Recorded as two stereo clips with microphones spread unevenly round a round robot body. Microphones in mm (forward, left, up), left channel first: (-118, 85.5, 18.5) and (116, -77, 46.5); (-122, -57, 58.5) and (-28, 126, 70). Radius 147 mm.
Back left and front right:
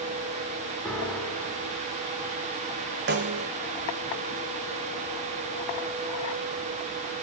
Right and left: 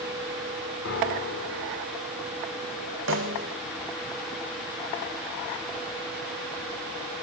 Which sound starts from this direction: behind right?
A piano, at 0.8 s.